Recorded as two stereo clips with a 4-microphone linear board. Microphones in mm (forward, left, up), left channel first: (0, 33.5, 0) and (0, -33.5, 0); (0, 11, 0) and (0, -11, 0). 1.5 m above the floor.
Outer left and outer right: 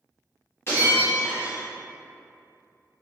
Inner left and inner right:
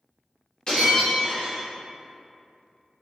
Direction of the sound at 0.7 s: 35° left (ahead or behind).